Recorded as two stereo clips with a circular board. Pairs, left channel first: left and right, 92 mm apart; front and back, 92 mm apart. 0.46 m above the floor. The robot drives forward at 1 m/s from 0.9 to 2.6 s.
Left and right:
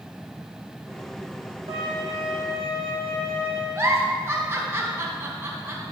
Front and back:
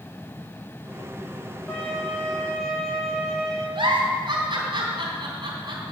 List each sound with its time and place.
1.7 s a violin: 80° right, 6.5 m; by 3.6 s 85° right, 6.5 m
3.8 s a giggle: 150° right, 3.5 m